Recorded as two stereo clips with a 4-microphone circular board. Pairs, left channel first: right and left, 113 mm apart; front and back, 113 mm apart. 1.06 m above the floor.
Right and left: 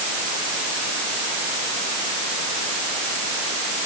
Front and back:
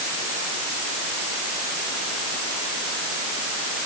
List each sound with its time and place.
Only background noise.